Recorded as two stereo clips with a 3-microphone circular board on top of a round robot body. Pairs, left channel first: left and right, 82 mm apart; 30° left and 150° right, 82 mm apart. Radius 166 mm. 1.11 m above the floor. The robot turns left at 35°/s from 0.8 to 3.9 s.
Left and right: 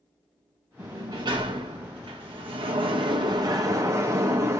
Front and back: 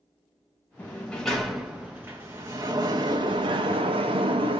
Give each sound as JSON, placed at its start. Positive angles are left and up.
{"t": 0.8, "sound": "a sliding door", "azimuth_deg": -40, "distance_m": 0.7}